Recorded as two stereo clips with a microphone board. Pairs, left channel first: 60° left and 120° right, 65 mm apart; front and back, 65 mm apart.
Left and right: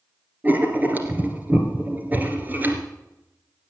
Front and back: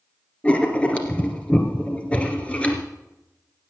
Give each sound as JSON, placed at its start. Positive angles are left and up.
{"t": 0.4, "sound": "writing", "azimuth_deg": -65, "distance_m": 2.0}